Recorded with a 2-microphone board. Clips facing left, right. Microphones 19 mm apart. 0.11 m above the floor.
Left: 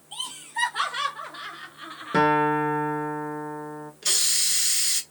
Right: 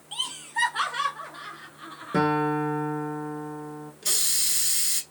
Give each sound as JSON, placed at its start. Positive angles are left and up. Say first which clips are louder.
{"t": 0.1, "sound": "laughter", "louder": "right 2 dB", "side_deg": -30, "distance_m": 1.2}
{"t": 2.1, "sound": "a guitar", "louder": "left 3 dB", "side_deg": 30, "distance_m": 1.0}
{"t": 4.0, "sound": "a hiss", "louder": "left 3 dB", "side_deg": 20, "distance_m": 0.9}